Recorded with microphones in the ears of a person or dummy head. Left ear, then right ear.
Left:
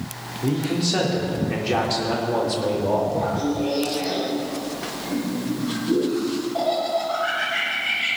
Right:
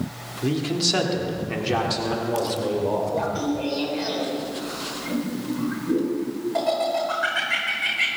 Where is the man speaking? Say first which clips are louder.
Right 1 dB; 40° right (ahead or behind), 2.5 m; by 3.0 s 5° left (ahead or behind), 4 m.